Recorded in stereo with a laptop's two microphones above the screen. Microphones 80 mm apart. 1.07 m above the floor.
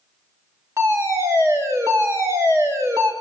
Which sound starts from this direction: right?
A fire alarm, at 0.8 s.